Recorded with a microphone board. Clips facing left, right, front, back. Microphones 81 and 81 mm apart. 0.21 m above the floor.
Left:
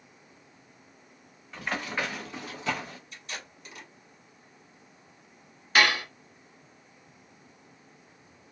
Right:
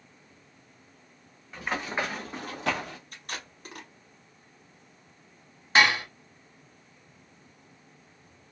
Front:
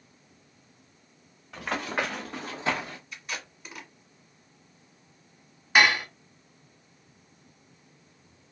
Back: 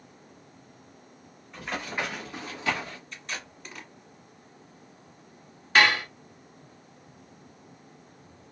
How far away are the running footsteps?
About 1.4 m.